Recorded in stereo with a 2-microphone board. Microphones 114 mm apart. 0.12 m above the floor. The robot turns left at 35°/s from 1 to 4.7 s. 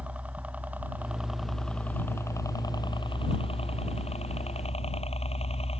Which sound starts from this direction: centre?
A helicopter, at 0.0 s.